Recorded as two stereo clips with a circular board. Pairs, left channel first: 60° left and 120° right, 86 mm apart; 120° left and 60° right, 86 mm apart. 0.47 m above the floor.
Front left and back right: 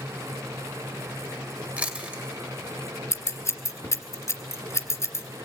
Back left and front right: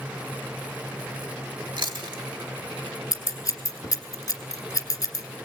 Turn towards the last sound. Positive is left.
turn(degrees=95)